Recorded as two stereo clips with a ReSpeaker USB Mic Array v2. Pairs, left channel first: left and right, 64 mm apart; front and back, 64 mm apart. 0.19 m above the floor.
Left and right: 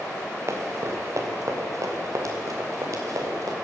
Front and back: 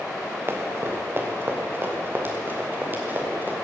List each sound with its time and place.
0.5 s running footsteps: 130° right, 2.5 m; by 3.5 s 120° right, 4.5 m